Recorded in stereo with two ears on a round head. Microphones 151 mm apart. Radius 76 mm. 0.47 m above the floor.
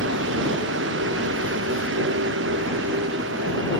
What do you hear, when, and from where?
0.0 s a vehicle: 85° right